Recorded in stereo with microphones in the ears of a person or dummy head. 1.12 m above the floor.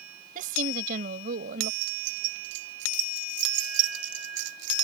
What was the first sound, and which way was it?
A woman speaking, 40° right (ahead or behind).